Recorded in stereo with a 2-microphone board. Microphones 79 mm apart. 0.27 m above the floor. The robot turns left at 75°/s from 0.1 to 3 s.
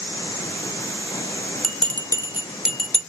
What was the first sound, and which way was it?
A bell, 80° right.